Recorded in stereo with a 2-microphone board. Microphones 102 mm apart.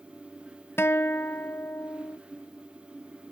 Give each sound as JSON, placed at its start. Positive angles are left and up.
{"t": 0.8, "sound": "a guitar", "side_deg": 20}